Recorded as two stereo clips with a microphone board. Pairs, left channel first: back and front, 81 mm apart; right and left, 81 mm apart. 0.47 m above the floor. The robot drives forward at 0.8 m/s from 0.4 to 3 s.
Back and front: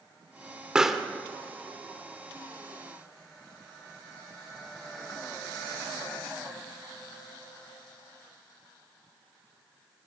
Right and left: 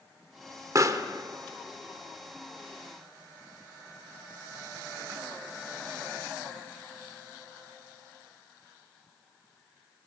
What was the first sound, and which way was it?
A pop, 75° left.